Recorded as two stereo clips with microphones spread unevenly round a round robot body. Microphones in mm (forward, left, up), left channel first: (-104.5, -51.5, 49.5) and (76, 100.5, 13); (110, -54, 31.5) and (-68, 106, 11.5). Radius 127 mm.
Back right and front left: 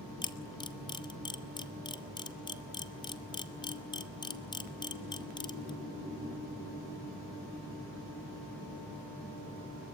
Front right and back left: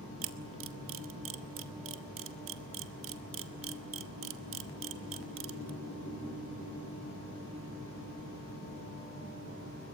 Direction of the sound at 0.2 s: 145° left.